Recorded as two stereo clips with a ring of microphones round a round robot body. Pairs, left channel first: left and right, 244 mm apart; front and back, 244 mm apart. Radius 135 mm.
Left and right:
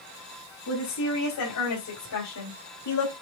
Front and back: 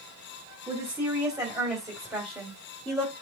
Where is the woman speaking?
105° left, 3.5 m; by 3.1 s 90° left, 2.5 m.